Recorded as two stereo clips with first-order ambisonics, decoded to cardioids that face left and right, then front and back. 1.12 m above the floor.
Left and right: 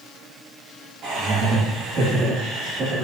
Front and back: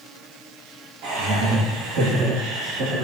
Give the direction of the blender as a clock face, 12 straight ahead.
No blender in this recording.